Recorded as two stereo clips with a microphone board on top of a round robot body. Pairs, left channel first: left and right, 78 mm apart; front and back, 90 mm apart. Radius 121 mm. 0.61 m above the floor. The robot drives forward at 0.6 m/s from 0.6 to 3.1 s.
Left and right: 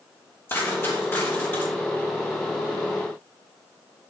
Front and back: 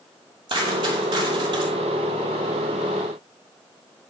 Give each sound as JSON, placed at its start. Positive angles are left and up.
{"t": 0.5, "sound": "a dropped coin", "azimuth_deg": 155, "distance_m": 5.0}